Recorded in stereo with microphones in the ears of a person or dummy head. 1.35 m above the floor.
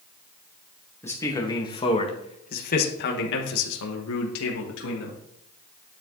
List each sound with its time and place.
1.0 s a man speaking: 15° left (ahead or behind), 1.8 m; by 5.2 s 70° left (ahead or behind), 1.9 m